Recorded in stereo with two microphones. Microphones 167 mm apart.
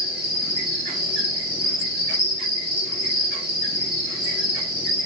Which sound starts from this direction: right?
An insect, at 0.0 s.